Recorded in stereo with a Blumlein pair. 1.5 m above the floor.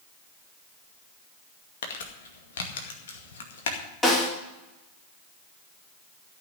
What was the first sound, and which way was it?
Crumpling, 60° left.